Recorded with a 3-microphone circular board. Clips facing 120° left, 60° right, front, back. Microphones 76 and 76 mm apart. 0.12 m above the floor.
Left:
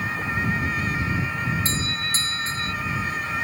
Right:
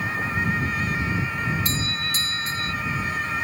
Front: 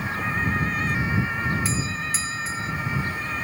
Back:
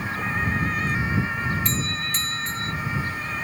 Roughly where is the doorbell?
Left.